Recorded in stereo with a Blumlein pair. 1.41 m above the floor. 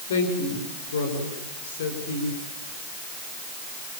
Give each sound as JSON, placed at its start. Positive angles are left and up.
{"t": 0.1, "sound": "a woman speaking", "azimuth_deg": 60, "distance_m": 6.0}